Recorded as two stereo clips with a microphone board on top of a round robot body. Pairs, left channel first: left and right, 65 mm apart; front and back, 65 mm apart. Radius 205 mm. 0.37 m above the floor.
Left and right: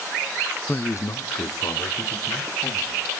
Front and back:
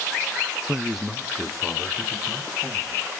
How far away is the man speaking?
About 0.8 m.